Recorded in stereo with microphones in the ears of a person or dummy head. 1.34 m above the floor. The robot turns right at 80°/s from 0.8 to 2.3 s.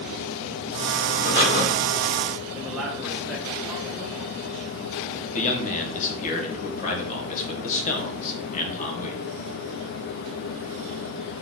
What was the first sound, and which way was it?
Breathing, 25° left.